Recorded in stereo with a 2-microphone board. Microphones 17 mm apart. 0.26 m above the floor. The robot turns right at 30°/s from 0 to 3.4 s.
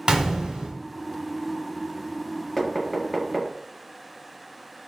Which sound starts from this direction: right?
A gunshot, at 0.1 s.